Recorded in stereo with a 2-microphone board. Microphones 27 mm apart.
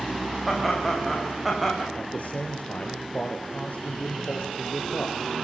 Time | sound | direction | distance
0.5 | laughter | centre (ahead or behind) | 10 m
1.9 | a man speaking | 65° left (ahead or behind) | 3 m